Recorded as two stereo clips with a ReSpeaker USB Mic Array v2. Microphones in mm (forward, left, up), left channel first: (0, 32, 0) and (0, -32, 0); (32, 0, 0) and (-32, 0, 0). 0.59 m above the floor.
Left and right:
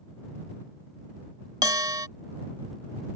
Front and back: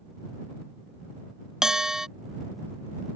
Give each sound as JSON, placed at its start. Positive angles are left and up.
{"t": 1.6, "sound": "a bell", "azimuth_deg": -100}